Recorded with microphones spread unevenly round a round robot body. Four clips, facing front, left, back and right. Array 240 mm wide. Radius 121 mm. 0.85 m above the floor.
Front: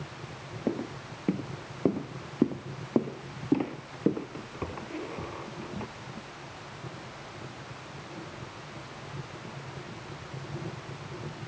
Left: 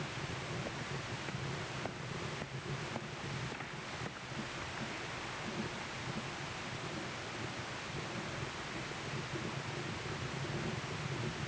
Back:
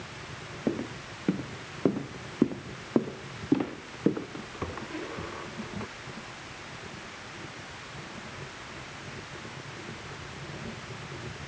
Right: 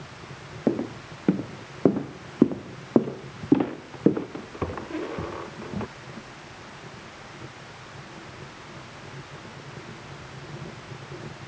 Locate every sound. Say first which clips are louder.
0.7 s footsteps: right 16 dB, back 1 dB; 90° right